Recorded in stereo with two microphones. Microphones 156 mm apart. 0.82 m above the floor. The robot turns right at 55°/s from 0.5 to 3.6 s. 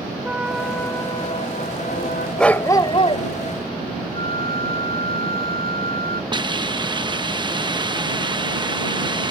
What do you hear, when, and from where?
0.2 s a trumpet: 5° right; by 2.3 s 90° left
2.4 s a dog barking: 5° left; by 3.2 s 50° left
4.1 s a flute: 85° right
6.3 s a hiss: 30° right (ahead or behind)